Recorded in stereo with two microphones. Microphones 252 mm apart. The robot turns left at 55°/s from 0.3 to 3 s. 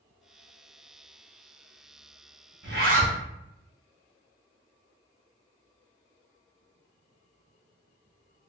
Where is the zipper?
50° right (ahead or behind), 1.0 m; by 3.2 s 30° right (ahead or behind), 1.0 m.